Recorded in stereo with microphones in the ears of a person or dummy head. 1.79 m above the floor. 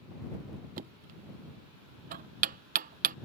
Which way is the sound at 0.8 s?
50° right (ahead or behind).